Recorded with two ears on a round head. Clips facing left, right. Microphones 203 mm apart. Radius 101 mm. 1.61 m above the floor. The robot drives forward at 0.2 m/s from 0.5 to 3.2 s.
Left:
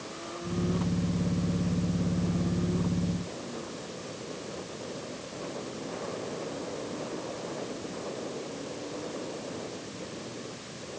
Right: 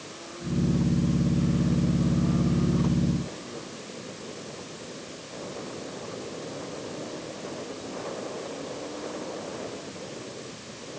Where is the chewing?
I don't hear chewing.